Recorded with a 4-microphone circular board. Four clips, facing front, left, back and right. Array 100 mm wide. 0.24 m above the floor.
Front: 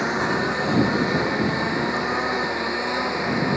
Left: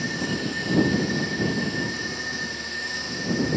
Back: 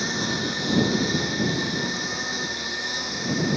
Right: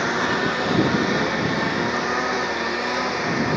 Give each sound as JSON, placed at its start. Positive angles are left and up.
{"t": 0.0, "sound": "a lawn mower", "azimuth_deg": -55}